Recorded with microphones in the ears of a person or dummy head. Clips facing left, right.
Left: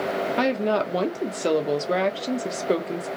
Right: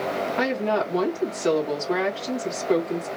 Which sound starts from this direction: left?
A woman speaking, at 0.4 s.